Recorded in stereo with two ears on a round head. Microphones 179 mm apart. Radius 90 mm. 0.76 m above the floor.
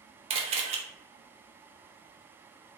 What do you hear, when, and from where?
0.3 s a camera shutter: 30° right (ahead or behind), 0.5 m